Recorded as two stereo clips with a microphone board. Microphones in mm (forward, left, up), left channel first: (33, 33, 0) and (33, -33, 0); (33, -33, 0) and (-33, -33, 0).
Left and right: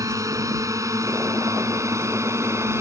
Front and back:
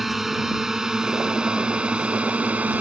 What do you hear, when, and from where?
0.0 s a drone: 95° right; by 2.8 s 120° right